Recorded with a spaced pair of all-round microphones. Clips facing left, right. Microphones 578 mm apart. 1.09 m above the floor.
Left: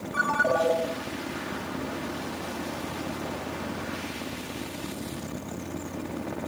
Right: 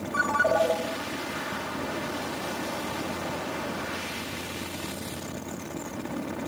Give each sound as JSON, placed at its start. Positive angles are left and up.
{"t": 0.1, "sound": "a ringtone", "side_deg": -25, "distance_m": 5.0}